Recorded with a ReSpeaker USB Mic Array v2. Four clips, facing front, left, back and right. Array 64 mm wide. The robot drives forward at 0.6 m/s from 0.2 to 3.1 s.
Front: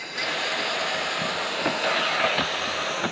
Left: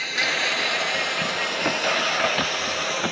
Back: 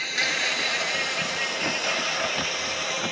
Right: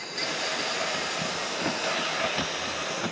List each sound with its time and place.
0.0 s an insect: 120° left; by 3.1 s 150° left